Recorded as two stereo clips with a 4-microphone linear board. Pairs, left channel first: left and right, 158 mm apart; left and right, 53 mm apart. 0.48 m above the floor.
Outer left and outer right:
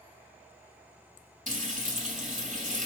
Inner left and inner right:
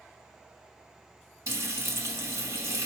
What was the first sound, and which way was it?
Frying, 55° right (ahead or behind).